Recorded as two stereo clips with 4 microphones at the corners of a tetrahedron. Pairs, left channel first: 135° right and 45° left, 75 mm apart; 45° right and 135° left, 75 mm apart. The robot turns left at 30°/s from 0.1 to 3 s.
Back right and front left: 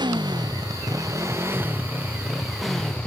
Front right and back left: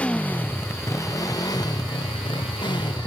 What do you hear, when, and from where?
0.0 s a motorcycle: 30° left; by 3.1 s 55° right